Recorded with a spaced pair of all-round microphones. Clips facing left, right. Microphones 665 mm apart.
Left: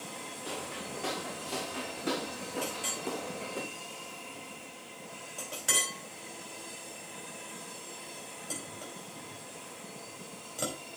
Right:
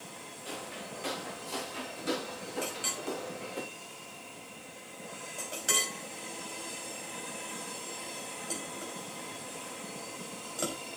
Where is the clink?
30° left (ahead or behind), 4 m.